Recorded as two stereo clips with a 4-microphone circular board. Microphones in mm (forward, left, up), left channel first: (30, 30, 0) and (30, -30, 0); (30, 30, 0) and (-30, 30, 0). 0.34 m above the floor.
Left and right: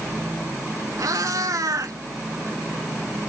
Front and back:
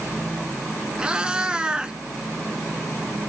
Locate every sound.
1.0 s a cat meowing: 105° right, 0.9 m